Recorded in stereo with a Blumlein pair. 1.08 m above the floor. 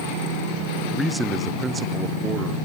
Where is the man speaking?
10° left, 0.7 m; by 2.6 s 25° right, 1.4 m.